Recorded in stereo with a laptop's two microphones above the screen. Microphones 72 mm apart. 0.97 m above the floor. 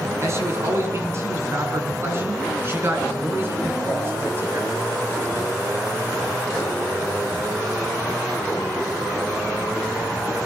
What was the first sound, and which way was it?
A man speaking, 40° right (ahead or behind).